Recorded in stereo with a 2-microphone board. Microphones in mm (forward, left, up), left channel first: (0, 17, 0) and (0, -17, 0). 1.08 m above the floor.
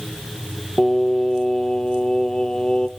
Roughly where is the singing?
Left.